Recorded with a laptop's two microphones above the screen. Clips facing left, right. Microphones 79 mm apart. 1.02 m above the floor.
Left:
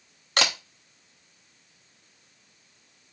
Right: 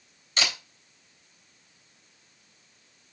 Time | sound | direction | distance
0.4 | a camera shutter | 60° left (ahead or behind) | 0.8 m